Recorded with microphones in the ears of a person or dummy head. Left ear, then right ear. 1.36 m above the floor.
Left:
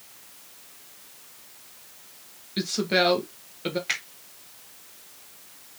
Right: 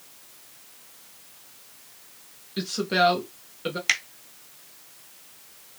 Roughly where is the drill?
No drill in this recording.